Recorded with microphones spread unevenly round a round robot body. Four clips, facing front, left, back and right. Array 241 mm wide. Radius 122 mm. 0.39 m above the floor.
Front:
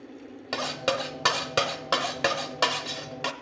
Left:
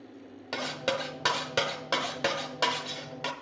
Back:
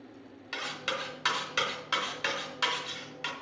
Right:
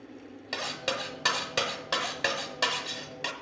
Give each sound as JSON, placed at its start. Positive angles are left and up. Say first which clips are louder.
{"t": 0.5, "sound": "cutlery clinking", "louder": "left 3 dB, front 8 dB", "azimuth_deg": 20, "distance_m": 0.9}